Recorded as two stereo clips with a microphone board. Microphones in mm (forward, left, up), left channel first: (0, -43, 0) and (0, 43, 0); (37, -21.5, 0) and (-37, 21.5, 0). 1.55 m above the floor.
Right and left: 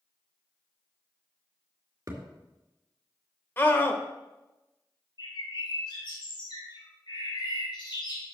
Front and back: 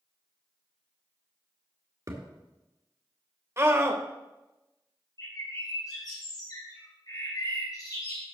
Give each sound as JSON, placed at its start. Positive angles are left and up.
{"t": 2.1, "sound": "a thud", "azimuth_deg": 125, "distance_m": 2.5}
{"t": 3.6, "sound": "a scream", "azimuth_deg": -155, "distance_m": 1.5}
{"t": 5.2, "sound": "a bird", "azimuth_deg": -70, "distance_m": 4.0}